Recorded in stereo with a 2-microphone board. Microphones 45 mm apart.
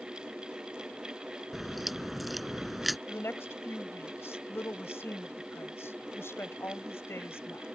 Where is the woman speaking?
70° left (ahead or behind).